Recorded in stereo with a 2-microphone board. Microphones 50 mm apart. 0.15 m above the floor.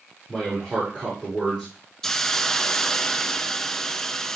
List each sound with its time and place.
0.3 s a man speaking: 5° right (ahead or behind), 5.5 m
2.0 s a hiss: 10° left (ahead or behind), 0.6 m